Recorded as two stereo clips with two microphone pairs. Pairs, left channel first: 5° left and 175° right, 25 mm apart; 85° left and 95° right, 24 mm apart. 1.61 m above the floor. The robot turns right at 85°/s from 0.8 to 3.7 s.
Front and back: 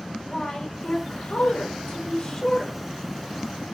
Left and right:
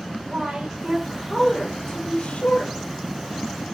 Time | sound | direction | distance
0.3 | a woman speaking | 60° right | 6.5 m